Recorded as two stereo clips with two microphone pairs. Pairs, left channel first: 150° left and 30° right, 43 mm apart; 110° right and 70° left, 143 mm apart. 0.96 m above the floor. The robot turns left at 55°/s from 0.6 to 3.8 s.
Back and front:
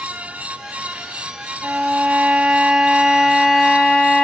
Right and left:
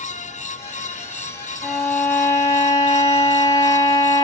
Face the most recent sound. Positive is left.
turn(degrees=-135)